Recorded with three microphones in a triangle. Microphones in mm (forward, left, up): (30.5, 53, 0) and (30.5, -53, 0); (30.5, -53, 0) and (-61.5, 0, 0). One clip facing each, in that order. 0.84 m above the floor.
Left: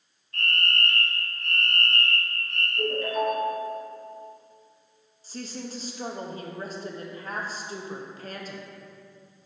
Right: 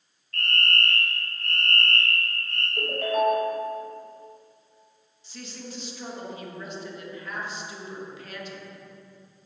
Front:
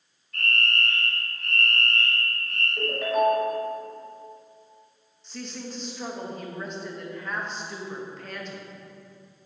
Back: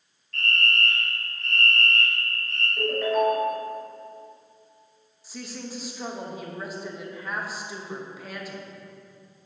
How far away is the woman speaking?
About 0.7 m.